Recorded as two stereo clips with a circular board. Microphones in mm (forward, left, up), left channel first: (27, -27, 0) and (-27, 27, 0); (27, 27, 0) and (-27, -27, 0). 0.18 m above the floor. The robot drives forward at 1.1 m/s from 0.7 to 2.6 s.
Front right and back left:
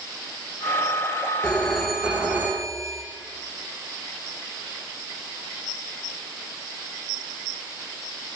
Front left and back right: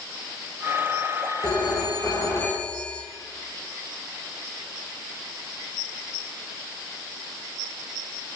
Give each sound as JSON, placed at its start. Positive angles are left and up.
{"t": 1.4, "sound": "a phone ringing", "azimuth_deg": 30, "distance_m": 1.5}